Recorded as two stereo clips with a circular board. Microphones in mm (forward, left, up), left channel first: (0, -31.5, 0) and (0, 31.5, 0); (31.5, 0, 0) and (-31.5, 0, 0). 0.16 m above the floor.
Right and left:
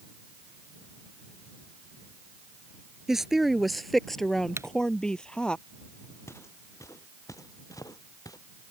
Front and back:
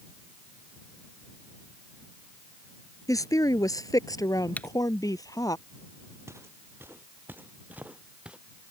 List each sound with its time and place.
3.1 s a woman speaking: 5° left; by 5.6 s 15° right
4.6 s typing on a keyboard: 60° left
6.3 s footsteps: 135° right; by 8.4 s 105° right